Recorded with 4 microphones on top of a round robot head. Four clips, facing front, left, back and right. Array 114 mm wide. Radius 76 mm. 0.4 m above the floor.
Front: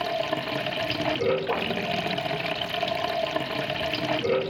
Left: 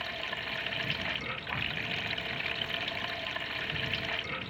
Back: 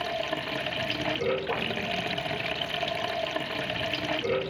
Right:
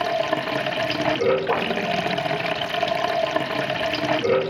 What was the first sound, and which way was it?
Running water, 85° right.